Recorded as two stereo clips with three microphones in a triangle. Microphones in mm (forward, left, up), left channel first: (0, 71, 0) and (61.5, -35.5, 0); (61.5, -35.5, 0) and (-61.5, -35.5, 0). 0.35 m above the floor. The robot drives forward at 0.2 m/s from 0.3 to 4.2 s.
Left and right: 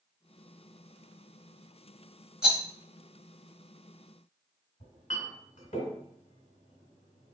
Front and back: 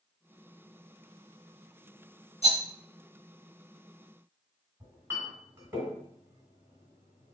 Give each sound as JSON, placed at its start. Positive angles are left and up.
{"t": 2.4, "sound": "a rattle", "azimuth_deg": 25, "distance_m": 0.8}
{"t": 4.8, "sound": "a clink", "azimuth_deg": 115, "distance_m": 1.8}